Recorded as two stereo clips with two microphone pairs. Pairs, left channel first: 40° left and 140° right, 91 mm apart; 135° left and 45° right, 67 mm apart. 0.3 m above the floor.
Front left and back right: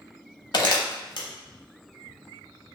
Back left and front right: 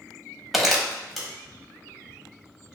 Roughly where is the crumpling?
Ahead left.